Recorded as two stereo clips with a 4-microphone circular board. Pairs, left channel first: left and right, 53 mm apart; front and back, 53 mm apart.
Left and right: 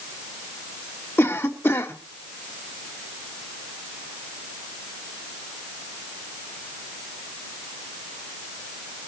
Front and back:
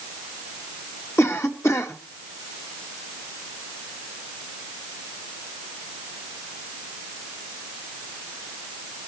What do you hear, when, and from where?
1.2 s a cough: 40° left, 2.0 m